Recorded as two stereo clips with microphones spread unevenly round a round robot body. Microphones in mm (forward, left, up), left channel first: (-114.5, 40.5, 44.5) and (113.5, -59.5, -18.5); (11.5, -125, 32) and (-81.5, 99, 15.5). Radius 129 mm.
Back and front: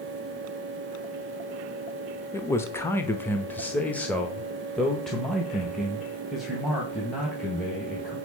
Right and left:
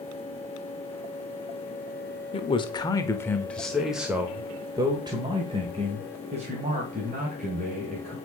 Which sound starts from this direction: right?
A man speaking, at 2.3 s.